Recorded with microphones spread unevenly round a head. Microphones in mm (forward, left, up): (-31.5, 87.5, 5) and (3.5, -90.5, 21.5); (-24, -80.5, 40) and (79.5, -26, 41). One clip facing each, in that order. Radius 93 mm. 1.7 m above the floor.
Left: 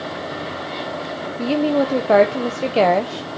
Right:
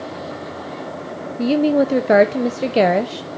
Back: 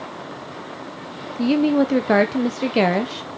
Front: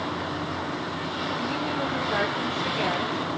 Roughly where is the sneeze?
No sneeze in this recording.